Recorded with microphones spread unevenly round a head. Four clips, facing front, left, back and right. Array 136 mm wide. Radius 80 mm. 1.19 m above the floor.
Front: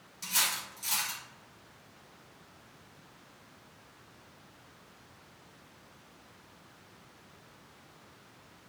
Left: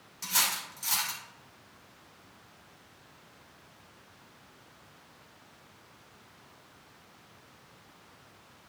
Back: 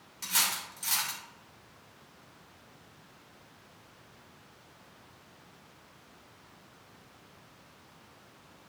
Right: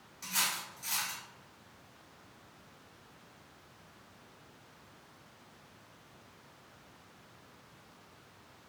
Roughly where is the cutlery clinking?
Left.